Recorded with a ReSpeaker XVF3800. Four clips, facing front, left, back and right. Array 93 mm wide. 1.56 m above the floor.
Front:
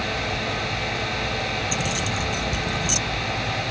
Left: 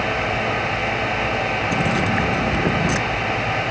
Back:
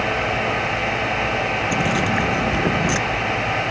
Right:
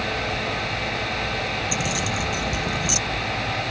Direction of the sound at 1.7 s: 140° left.